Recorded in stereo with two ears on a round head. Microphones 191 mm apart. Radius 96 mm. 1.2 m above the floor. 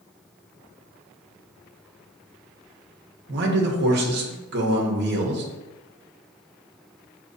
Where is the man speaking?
50° right (ahead or behind), 1.0 m.